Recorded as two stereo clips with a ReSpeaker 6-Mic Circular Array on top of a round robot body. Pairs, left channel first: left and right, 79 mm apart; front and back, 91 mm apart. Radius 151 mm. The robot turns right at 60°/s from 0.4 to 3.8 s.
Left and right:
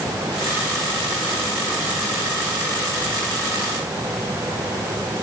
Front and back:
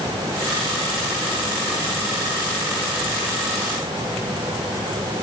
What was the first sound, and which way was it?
Only background noise.